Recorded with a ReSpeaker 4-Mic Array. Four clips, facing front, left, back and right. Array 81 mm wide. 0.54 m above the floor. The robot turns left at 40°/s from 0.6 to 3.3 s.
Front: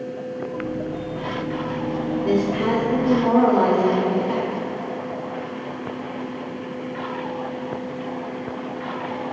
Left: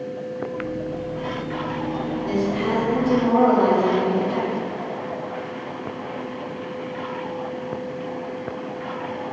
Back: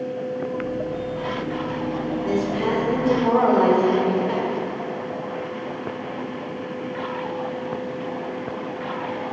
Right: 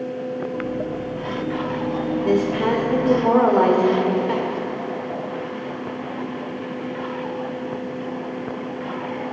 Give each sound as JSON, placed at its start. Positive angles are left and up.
{"t": 2.2, "sound": "a woman speaking", "azimuth_deg": -65, "distance_m": 1.5}